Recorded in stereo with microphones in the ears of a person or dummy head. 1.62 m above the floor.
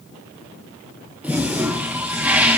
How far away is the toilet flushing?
About 0.5 m.